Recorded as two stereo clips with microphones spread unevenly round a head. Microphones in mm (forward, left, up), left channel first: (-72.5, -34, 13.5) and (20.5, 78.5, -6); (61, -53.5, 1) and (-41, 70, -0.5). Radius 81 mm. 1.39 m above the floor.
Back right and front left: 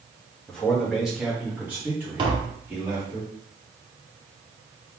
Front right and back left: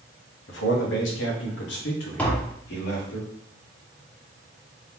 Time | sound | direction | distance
0.5 | a man speaking | 45° right | 1.2 m
2.2 | tapping | 20° left | 0.9 m